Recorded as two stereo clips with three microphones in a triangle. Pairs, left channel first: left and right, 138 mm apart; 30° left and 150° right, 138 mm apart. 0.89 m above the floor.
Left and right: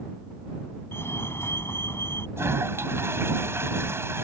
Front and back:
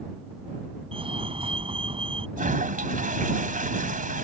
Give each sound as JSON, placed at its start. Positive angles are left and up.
{"t": 0.9, "sound": "a fire alarm", "azimuth_deg": 165}
{"t": 2.4, "sound": "a toilet flushing", "azimuth_deg": -160}